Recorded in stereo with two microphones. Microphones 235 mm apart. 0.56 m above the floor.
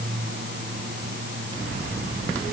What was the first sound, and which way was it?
Only background noise.